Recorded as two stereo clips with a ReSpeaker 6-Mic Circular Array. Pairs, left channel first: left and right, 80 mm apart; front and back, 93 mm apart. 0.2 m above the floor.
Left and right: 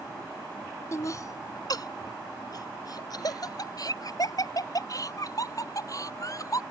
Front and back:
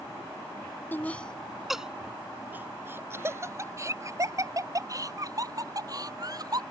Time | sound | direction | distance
0.9 | laughter | 60° left | ?